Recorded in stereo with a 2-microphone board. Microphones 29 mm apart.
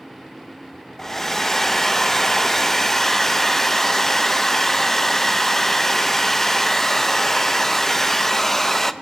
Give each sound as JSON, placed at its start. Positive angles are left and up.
{"t": 1.0, "sound": "a hair dryer", "side_deg": 15, "distance_m": 0.7}